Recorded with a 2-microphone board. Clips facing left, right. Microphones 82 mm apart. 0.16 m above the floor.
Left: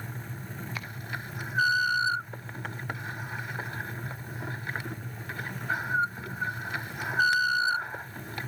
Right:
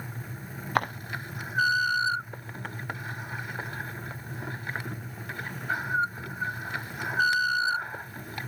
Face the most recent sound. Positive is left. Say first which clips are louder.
# right 18 dB
turn(degrees=-60)  # may be behind; listen again after turning